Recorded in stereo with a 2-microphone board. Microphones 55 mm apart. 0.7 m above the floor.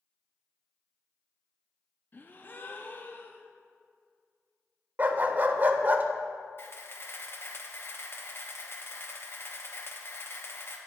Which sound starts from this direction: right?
A dog barking, at 5.0 s.